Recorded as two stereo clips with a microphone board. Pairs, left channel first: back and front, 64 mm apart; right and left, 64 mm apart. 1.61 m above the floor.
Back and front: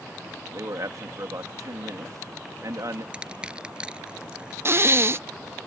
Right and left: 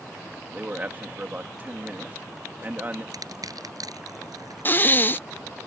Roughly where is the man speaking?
Ahead left.